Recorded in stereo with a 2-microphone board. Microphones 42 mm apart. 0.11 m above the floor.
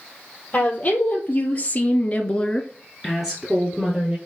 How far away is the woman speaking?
About 3 m.